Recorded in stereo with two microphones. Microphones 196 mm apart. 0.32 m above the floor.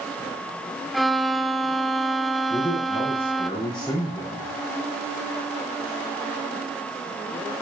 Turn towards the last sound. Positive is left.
turn(degrees=20)  # may be behind; listen again after turning